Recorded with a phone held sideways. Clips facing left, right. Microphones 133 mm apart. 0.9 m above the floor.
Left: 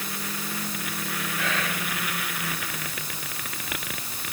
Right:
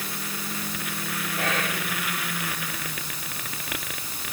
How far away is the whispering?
About 1.8 m.